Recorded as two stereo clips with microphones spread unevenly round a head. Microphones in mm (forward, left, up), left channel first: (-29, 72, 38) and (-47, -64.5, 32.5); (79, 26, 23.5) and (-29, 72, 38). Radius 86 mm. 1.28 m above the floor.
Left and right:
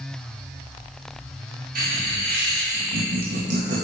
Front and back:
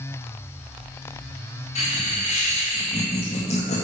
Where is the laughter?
75° right, 2.5 m; by 3.9 s 60° right, 1.6 m.